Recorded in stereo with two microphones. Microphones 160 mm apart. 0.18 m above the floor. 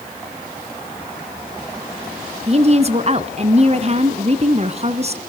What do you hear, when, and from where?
2.5 s a woman speaking: 45° right (ahead or behind), 1.7 m